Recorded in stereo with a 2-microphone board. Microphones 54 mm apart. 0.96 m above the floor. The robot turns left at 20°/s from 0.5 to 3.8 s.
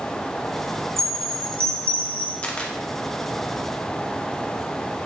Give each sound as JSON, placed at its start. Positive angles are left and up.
{"t": 1.0, "sound": "a chime", "side_deg": -60, "distance_m": 1.2}
{"t": 2.4, "sound": "a camera shutter", "side_deg": 20, "distance_m": 0.9}